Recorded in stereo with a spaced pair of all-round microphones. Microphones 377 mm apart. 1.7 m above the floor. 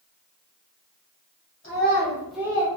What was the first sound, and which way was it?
A child speaking, 30° left (ahead or behind).